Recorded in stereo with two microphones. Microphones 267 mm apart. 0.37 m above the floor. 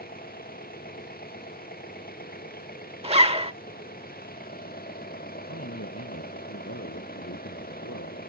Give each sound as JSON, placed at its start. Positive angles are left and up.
{"t": 0.0, "sound": "an engine running", "side_deg": 35}
{"t": 3.0, "sound": "a zipper", "side_deg": -20}
{"t": 5.4, "sound": "a man speaking", "side_deg": 65}